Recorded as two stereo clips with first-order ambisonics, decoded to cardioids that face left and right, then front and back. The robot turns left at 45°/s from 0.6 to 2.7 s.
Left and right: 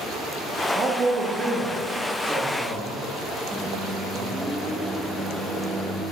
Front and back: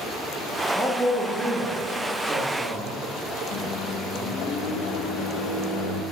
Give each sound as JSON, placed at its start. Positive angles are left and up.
{"t": 0.7, "sound": "a man speaking", "azimuth_deg": -90, "distance_m": 0.7}
{"t": 3.5, "sound": "a microwave", "azimuth_deg": -5, "distance_m": 0.6}